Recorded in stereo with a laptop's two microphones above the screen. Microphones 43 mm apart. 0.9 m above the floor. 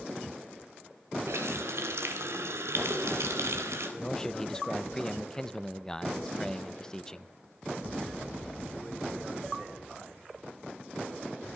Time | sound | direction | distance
1.3 | a running tap | 85° right | 3 m
4.0 | a man speaking | 15° left (ahead or behind) | 0.7 m